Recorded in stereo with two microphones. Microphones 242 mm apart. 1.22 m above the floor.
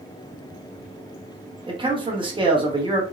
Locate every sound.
1.7 s a man speaking: 20° right (ahead or behind), 0.9 m